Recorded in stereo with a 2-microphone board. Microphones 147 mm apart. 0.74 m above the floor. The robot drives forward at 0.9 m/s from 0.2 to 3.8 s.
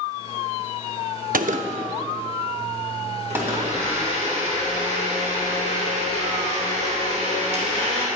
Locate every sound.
1.3 s a gunshot: 70° right (ahead or behind), 0.5 m; by 3.8 s 10° right (ahead or behind), 2.5 m
3.3 s a blender: 55° right (ahead or behind), 3 m; by 8.1 s 50° right (ahead or behind), 3.5 m